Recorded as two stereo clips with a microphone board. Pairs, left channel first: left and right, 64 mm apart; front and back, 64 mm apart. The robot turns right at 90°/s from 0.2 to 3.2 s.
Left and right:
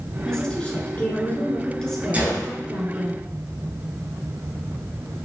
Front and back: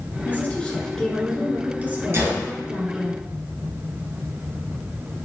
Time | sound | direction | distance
0.2 | a woman speaking | 15° left | 1.3 m
2.1 | a gunshot | 150° right | 1.3 m